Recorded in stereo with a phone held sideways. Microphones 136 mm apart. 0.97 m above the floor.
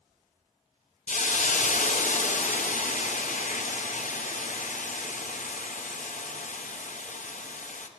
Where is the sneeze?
No sneeze in this recording.